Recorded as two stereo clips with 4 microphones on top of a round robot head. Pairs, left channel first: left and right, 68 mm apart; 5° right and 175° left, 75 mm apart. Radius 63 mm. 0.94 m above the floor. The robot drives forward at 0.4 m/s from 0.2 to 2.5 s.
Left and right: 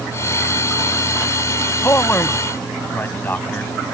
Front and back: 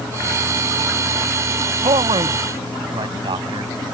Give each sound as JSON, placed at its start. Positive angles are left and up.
{"t": 1.8, "sound": "a man speaking", "azimuth_deg": 150}